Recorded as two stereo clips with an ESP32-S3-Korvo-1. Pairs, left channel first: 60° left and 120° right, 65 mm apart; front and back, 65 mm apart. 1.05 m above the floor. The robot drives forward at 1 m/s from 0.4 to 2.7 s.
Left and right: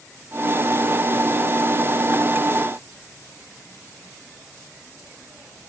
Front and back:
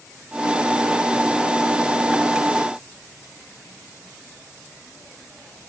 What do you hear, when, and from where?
Only background noise.